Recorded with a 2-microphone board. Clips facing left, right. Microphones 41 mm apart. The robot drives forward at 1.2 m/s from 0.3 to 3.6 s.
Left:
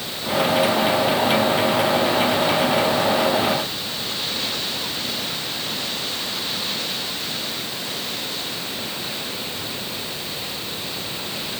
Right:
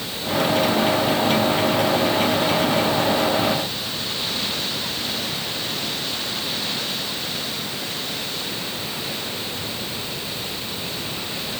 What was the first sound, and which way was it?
Only background noise.